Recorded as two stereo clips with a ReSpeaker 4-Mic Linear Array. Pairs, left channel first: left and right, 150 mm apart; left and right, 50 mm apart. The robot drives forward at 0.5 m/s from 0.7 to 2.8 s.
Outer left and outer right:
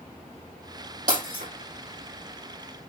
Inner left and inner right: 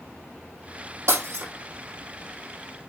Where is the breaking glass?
70° right (ahead or behind), 5.5 m.